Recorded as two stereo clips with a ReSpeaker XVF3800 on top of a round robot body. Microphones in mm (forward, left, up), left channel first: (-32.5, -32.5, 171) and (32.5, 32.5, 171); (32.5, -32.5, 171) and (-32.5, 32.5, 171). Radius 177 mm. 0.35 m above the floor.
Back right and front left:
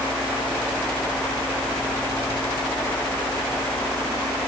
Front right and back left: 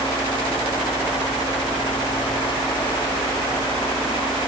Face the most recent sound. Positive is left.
No sound to turn to.